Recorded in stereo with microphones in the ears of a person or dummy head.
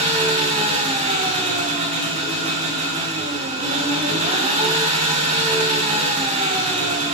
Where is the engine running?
35° right (ahead or behind), 2.5 m.